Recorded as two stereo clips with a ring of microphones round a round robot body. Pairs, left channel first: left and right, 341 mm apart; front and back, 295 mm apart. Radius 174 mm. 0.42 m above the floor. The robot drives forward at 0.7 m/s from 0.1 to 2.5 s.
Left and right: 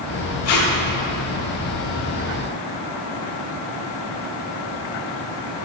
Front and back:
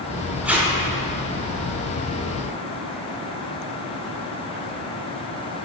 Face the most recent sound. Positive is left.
turn(degrees=145)